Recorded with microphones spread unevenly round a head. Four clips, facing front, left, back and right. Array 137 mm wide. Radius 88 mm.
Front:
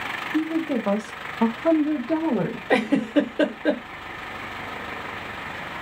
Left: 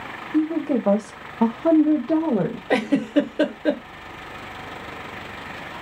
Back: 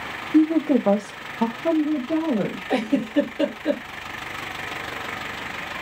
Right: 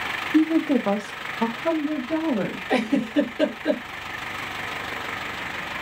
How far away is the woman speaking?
About 0.8 m.